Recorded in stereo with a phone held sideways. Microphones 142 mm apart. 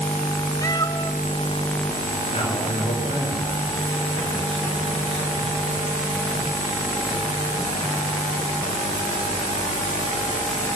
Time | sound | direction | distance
0.6 | a cat meowing | 25° left (ahead or behind) | 0.8 m
2.3 | a man speaking | 45° left (ahead or behind) | 6 m